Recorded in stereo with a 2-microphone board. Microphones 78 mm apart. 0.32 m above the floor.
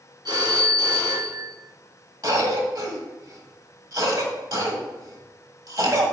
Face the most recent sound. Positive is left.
turn(degrees=-50)  # may be behind; listen again after turning